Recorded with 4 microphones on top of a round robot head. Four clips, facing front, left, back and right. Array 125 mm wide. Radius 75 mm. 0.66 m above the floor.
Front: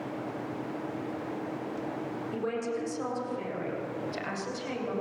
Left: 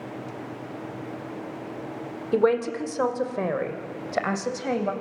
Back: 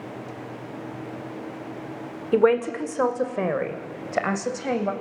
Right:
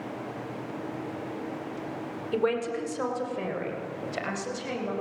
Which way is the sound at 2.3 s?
155° left.